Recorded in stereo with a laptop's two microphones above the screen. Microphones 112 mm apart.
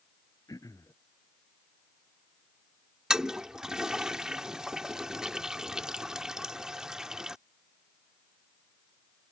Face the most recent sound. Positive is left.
turn(degrees=-5)  # may be behind; listen again after turning